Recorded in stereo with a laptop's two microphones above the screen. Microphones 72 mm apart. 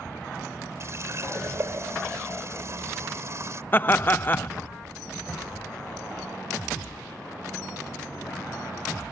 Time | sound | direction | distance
0.8 | a running tap | 45° right (ahead or behind) | ?
3.7 | laughter | 30° left (ahead or behind) | ?